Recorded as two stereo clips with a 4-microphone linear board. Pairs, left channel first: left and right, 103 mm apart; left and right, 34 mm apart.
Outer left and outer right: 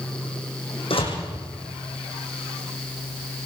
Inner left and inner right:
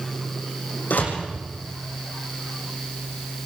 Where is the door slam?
60° left (ahead or behind), 8 m.